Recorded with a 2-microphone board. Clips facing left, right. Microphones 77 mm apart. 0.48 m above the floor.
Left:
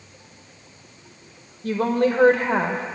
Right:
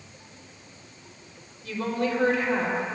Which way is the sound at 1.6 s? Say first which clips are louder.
Left 7 dB; 50° left (ahead or behind).